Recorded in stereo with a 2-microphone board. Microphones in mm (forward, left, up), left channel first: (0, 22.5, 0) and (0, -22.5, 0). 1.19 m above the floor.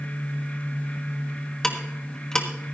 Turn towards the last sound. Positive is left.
turn(degrees=10)  # may be behind; listen again after turning